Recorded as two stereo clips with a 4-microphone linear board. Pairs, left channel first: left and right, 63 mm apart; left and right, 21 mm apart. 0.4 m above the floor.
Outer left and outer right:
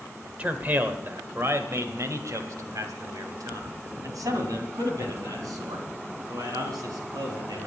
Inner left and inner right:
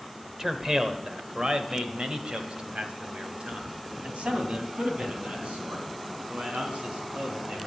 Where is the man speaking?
25° right (ahead or behind), 1.3 m; by 7.7 s 80° right, 4.5 m.